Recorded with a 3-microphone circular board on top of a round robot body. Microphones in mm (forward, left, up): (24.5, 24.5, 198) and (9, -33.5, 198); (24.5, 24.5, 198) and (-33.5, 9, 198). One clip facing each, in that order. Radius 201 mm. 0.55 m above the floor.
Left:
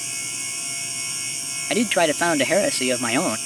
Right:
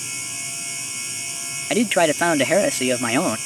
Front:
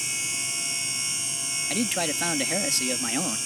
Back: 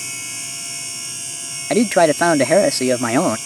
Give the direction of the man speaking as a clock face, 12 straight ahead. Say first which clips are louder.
Right 2 dB, back 15 dB; 6 o'clock.